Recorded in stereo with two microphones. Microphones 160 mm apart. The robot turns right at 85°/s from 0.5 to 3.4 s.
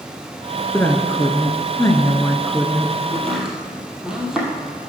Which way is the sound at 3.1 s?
20° left (ahead or behind).